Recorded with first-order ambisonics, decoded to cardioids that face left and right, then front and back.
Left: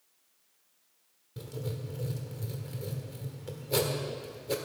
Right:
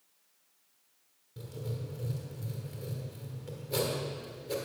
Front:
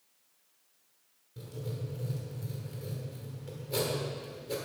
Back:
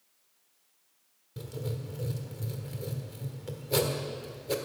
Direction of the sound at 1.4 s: 145° left.